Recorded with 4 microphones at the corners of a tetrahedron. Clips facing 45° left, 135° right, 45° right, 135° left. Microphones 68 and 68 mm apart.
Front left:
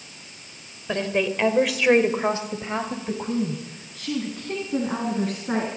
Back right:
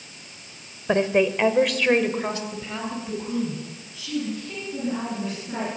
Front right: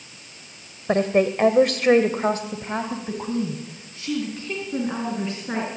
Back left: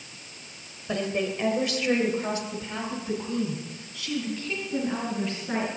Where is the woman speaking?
80° right, 2 m; by 5.7 s 20° left, 6.5 m.